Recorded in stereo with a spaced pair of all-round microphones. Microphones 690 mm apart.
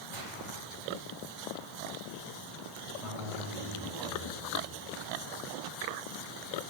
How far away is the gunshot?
About 2.5 m.